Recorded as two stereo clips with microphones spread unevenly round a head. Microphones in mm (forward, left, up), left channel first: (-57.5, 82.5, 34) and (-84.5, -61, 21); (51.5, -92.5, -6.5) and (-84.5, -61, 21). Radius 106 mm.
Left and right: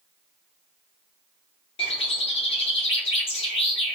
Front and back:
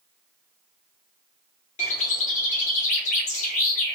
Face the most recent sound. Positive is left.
turn(degrees=35)